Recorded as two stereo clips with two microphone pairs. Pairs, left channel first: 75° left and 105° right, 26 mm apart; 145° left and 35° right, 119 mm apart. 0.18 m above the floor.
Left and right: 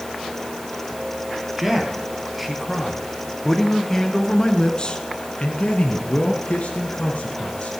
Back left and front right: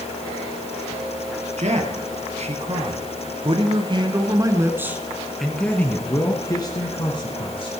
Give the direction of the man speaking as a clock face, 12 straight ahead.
1 o'clock.